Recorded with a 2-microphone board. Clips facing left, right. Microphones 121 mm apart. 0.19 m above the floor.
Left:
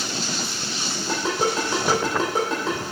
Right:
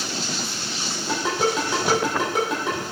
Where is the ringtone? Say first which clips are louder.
Right 1 dB; 15° right (ahead or behind), 3 m.